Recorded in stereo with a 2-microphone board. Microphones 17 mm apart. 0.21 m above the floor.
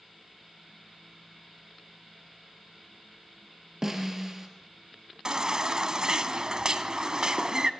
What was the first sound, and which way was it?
A snare drum, 20° right (ahead or behind).